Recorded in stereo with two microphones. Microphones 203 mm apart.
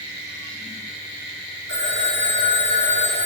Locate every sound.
1.7 s a phone ringing: 70° left (ahead or behind), 9 m